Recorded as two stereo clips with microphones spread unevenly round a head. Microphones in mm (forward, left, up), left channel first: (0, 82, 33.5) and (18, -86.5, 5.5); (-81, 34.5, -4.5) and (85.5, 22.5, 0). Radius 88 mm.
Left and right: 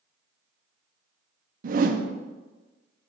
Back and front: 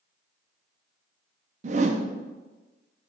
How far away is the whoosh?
About 0.6 m.